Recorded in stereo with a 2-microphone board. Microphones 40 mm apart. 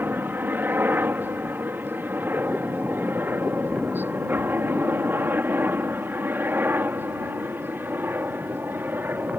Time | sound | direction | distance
0.0 | a helicopter | 60° right (ahead or behind) | ?